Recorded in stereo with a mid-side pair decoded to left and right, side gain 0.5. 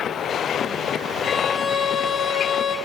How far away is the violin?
About 3.5 m.